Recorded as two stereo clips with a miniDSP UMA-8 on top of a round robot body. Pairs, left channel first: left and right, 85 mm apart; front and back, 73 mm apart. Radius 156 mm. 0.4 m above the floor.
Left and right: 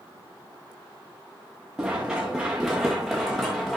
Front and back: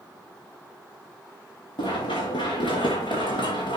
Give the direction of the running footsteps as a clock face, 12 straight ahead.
12 o'clock.